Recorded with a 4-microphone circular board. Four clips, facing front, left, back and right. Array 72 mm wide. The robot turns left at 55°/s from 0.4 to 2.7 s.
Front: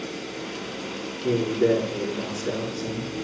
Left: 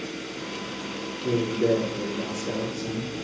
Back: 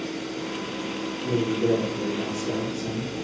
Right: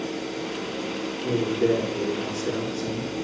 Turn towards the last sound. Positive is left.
turn(degrees=-65)